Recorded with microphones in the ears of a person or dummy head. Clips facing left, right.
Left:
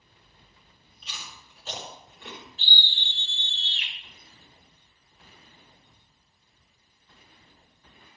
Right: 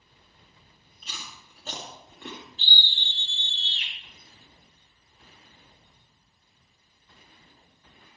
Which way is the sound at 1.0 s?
40° right (ahead or behind).